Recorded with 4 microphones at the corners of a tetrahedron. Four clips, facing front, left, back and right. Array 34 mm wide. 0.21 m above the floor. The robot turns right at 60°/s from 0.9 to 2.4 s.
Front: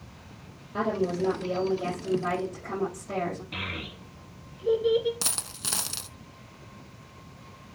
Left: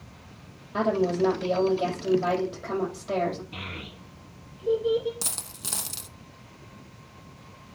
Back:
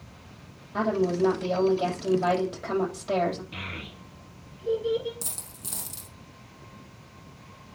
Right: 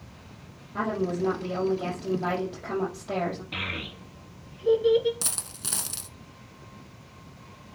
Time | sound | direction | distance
0.7 | a woman speaking | 90° left | 6.5 m
3.5 | a child speaking | 70° right | 2.5 m
5.2 | a dropped coin | straight ahead | 0.7 m